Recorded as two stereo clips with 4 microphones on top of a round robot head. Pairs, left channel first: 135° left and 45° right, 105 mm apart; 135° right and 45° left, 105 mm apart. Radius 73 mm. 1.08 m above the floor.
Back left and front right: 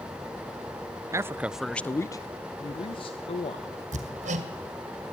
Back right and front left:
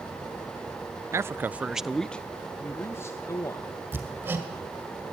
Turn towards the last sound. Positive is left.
turn(degrees=-30)